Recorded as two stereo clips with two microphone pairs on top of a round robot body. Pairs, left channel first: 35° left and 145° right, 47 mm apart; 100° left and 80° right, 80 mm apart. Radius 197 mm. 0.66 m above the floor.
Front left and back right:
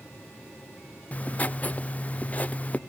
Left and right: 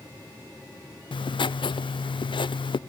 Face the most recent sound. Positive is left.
turn(degrees=95)